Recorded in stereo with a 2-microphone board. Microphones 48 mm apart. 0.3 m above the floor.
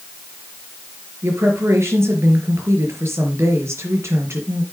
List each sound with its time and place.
1.2 s a woman speaking: 65° right (ahead or behind), 4.5 m